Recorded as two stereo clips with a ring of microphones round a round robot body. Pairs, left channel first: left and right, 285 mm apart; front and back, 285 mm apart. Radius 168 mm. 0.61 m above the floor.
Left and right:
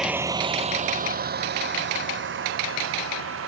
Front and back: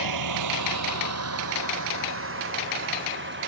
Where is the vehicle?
Straight behind; by 3.5 s 130° right.